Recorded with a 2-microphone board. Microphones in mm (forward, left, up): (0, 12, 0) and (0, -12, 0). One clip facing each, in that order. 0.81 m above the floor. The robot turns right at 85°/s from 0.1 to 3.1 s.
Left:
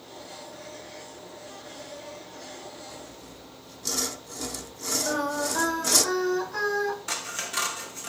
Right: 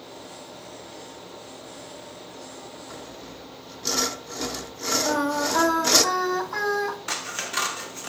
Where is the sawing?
40° right (ahead or behind), 0.5 m; by 6.0 s 25° right (ahead or behind), 0.5 m.